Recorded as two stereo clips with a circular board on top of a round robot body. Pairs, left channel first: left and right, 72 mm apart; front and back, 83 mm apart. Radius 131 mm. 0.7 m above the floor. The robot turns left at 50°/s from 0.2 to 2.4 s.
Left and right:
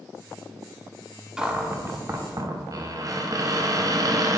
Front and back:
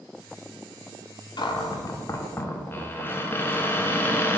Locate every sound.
1.4 s a cupboard door: 10° right, 1.2 m; by 4.4 s 60° right, 1.2 m